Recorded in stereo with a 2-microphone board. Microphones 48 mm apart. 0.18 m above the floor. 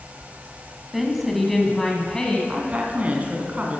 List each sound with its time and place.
0.9 s a woman speaking: centre (ahead or behind), 1.2 m; by 2.4 s 15° left (ahead or behind), 1.3 m
2.5 s a woman speaking: 35° right (ahead or behind), 1.4 m